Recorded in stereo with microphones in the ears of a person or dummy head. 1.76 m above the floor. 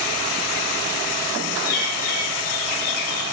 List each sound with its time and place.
1.6 s a bird: 50° left (ahead or behind), 2 m